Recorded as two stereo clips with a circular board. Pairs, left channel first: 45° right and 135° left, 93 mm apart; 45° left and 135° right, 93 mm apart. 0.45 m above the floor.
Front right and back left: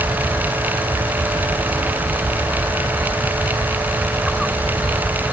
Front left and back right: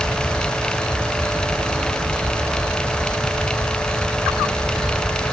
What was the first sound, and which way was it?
Only background noise.